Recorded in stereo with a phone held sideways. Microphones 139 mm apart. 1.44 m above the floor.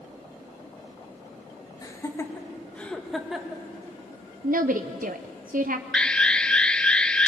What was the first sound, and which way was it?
Laughter, 25° left (ahead or behind).